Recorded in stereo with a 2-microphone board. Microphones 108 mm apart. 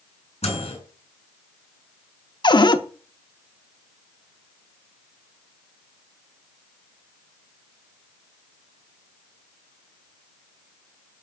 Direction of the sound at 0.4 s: 85° left.